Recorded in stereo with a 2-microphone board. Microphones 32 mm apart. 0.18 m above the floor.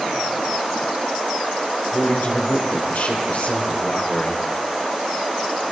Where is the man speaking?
75° left (ahead or behind), 5 m.